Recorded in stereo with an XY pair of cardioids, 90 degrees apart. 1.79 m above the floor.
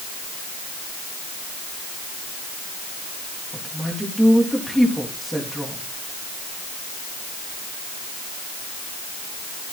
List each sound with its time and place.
3.5 s a woman speaking: straight ahead, 3.5 m